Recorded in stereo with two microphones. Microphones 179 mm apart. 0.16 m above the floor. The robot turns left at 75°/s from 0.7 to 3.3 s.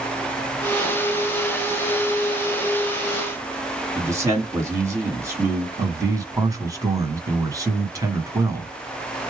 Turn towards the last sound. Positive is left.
turn(degrees=-20)  # may be behind; listen again after turning